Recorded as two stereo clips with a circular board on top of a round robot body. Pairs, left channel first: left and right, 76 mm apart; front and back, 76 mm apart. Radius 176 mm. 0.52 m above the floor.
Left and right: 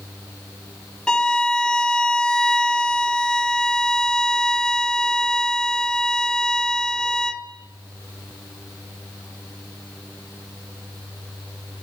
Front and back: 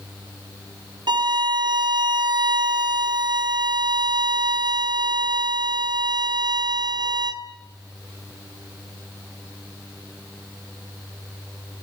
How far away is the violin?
About 2.0 m.